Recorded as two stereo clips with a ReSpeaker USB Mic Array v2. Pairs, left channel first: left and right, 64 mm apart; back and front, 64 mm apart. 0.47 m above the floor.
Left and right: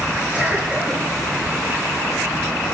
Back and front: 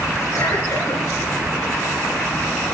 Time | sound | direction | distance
0.3 | a cough | 160° right | 7 m